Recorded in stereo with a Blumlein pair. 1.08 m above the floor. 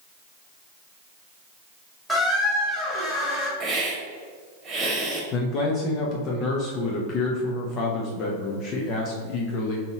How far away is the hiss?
About 1.3 m.